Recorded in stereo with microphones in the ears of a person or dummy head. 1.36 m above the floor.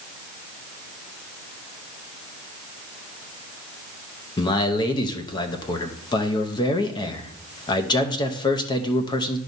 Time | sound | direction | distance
4.4 | a man speaking | 25° left (ahead or behind) | 0.8 m